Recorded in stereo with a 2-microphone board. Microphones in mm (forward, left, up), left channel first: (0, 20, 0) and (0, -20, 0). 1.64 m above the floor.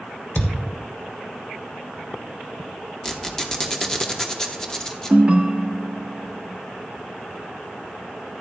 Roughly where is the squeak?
Centre.